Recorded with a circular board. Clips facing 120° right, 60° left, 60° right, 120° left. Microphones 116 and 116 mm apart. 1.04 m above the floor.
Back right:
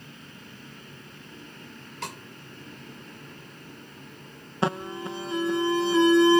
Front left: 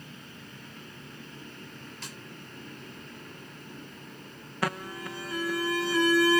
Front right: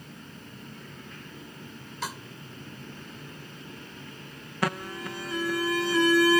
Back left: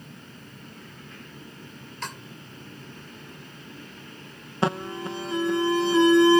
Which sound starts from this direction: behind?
An alarm, at 4.6 s.